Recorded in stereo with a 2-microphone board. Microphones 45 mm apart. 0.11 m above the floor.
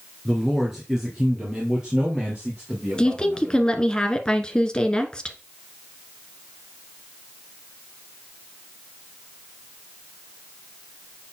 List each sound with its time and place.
0.2 s a man speaking: centre (ahead or behind), 2.0 m; by 3.6 s 25° right (ahead or behind), 5 m
3.0 s a woman speaking: 20° left (ahead or behind), 1.2 m